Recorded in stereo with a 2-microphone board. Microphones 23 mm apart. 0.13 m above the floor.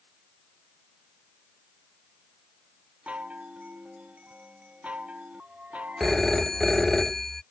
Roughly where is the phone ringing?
Centre.